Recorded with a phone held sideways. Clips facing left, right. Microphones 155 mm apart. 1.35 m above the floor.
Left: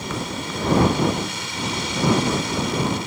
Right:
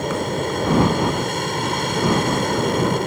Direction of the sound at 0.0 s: 50° right (ahead or behind).